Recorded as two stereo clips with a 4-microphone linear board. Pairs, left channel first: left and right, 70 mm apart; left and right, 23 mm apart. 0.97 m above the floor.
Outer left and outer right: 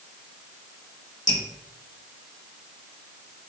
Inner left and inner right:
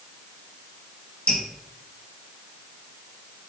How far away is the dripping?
About 2.5 m.